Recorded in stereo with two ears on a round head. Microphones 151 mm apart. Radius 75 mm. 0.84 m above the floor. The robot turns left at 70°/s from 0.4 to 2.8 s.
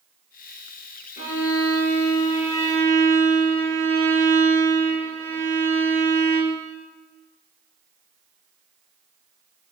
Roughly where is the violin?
Behind left.